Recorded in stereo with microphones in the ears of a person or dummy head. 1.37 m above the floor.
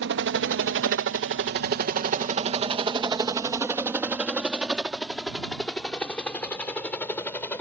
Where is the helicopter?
60° right (ahead or behind); by 7.6 s 15° left (ahead or behind).